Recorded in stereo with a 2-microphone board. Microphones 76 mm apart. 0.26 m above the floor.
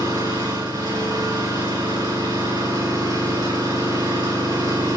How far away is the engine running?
About 5.5 m.